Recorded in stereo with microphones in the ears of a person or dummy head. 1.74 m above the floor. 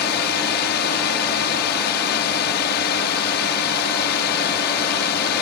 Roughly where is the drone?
Left.